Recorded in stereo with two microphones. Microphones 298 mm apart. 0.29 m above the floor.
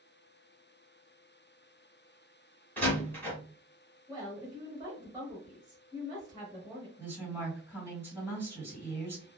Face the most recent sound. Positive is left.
turn(degrees=-10)  # may be behind; listen again after turning